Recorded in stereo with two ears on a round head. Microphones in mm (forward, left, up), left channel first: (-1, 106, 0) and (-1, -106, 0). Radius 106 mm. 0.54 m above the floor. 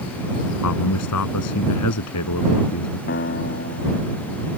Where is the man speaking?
80° left.